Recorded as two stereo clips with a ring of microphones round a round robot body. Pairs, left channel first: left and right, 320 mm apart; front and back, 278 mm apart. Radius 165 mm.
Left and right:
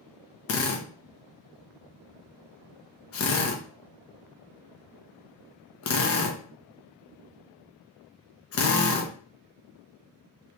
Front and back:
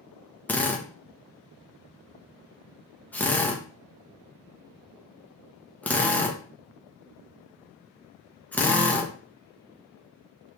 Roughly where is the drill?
Left.